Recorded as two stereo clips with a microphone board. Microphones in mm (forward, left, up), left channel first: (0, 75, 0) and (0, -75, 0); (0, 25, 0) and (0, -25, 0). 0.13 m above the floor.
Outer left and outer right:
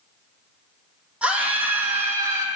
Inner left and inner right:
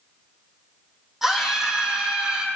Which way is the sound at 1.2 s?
10° right (ahead or behind).